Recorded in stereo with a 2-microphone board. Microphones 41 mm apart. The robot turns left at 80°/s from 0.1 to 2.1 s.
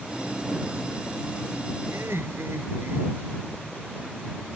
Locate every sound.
1.9 s laughter: 80° right; by 3.4 s 85° right